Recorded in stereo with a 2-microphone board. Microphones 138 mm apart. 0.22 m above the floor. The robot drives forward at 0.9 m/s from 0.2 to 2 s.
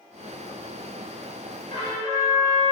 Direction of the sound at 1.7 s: 35° left (ahead or behind).